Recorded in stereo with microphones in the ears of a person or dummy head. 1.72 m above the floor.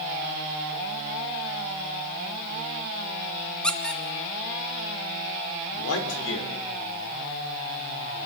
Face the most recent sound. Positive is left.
turn(degrees=80)